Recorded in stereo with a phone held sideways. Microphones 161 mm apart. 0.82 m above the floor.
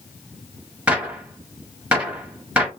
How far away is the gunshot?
About 0.8 m.